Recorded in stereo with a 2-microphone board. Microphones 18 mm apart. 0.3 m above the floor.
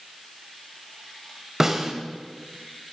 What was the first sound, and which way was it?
A snare drum, 20° right (ahead or behind).